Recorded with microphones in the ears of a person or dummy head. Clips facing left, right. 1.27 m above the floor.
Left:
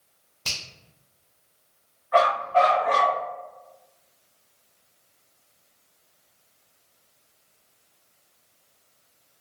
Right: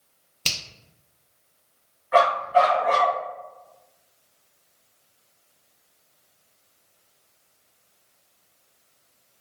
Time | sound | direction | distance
0.5 | a finger snap | 40° right (ahead or behind) | 0.6 m
2.1 | a dog barking | 40° right (ahead or behind) | 1.4 m